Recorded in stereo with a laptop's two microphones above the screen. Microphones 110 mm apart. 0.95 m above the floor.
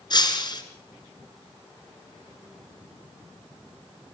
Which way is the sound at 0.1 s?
40° left (ahead or behind).